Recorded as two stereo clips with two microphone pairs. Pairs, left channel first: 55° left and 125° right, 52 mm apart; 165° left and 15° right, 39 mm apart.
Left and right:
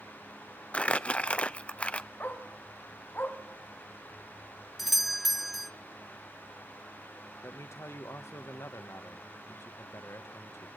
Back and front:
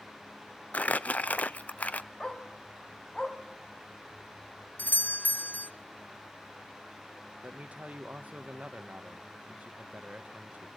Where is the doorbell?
145° left, 0.5 m.